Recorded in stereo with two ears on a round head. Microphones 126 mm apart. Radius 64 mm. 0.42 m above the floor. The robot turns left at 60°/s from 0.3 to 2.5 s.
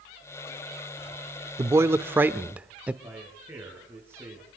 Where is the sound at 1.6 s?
20° right (ahead or behind), 0.8 m; by 2.9 s 10° right (ahead or behind), 0.8 m.